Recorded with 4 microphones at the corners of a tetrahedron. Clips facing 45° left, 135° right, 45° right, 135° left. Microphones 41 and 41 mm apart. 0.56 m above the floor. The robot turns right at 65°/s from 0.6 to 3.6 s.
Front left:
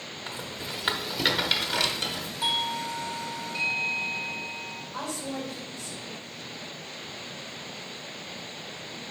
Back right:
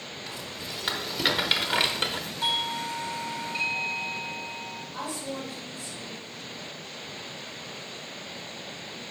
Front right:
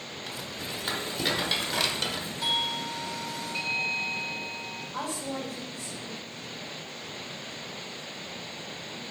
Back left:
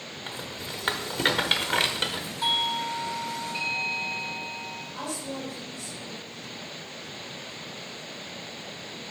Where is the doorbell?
100° left, 1.2 m; by 4.8 s 175° left, 1.2 m.